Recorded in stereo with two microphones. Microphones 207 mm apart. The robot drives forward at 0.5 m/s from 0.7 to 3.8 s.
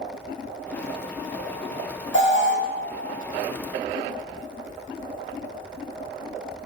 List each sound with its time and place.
2.1 s an alarm: 65° left (ahead or behind), 8 m